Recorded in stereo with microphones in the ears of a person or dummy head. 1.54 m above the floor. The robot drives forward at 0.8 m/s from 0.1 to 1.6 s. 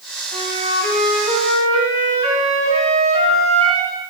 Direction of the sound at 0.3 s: 45° right (ahead or behind).